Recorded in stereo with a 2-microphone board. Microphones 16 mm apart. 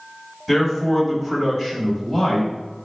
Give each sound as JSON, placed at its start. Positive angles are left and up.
{"t": 0.5, "sound": "a man speaking", "side_deg": -5, "distance_m": 1.2}